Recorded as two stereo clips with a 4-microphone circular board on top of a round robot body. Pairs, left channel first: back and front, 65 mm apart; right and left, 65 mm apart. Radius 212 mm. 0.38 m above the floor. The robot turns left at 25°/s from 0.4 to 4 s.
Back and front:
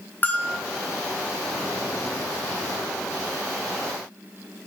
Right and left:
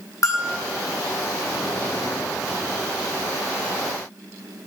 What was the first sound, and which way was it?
A bell, 120° right.